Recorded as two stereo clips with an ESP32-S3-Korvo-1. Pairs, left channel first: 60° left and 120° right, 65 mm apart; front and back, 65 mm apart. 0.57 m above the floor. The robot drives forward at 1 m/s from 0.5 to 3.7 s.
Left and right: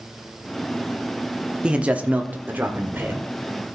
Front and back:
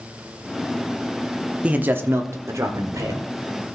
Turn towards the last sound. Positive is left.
turn(degrees=-175)